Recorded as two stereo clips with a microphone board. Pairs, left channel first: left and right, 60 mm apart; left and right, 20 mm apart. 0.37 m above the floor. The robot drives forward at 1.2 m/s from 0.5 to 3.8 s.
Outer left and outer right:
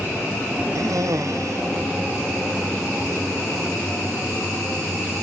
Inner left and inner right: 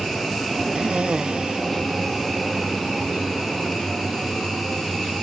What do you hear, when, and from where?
0.8 s a cough: 65° right (ahead or behind); by 3.2 s 50° right (ahead or behind)